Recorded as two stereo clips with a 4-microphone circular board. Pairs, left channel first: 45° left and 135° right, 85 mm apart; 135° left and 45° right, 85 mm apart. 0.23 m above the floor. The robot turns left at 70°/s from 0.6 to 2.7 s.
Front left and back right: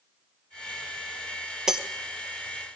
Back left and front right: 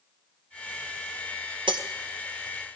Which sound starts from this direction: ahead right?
Breaking glass, at 1.7 s.